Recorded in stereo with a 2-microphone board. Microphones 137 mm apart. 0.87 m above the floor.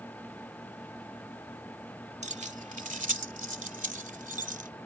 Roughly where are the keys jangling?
Right.